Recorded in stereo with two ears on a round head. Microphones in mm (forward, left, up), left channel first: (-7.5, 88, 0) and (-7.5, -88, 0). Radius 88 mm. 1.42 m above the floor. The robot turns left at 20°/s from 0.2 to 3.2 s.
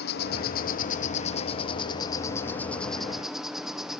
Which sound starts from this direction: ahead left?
An insect, at 0.0 s.